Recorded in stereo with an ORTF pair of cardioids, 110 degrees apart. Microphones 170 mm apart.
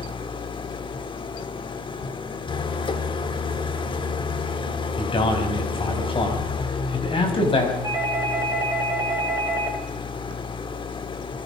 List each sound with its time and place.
0.0 s an engine running: 30° left, 1.7 m
5.0 s a man speaking: 30° left, 6 m
7.8 s a doorbell: 20° right, 6 m